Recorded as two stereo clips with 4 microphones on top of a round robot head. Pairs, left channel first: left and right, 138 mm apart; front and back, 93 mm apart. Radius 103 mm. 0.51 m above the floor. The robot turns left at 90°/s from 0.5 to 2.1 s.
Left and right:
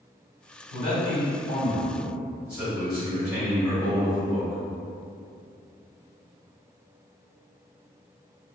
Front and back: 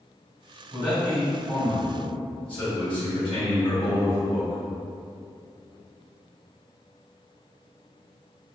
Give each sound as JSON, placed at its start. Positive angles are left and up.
{"t": 0.7, "sound": "a man speaking", "azimuth_deg": 115, "distance_m": 1.8}